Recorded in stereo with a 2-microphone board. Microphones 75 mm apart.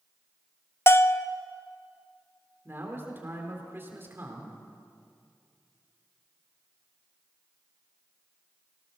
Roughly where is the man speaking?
Right.